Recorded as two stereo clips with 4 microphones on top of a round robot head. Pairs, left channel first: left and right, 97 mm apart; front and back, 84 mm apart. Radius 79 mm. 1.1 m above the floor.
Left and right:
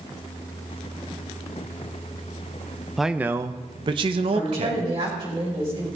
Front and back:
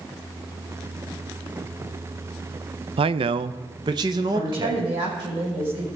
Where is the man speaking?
Straight behind, 0.6 m; by 4.9 s 120° right, 1.3 m.